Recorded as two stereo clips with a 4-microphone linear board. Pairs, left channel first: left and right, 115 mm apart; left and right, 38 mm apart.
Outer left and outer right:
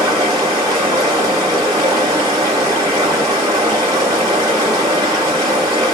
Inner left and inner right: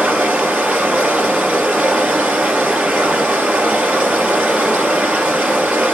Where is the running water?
35° right (ahead or behind), 1.8 m.